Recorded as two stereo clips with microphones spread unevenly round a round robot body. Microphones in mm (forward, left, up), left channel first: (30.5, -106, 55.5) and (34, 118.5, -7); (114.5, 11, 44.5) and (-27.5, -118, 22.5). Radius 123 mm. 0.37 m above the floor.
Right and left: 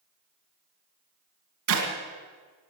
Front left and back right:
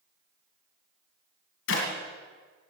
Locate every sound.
1.7 s a clap: 80° left, 2.5 m